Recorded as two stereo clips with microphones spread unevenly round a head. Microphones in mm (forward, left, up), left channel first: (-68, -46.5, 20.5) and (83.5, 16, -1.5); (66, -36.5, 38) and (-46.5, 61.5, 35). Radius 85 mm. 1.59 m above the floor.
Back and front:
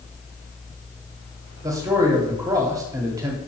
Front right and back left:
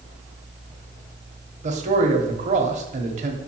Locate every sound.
1.6 s a man speaking: 95° left, 1.2 m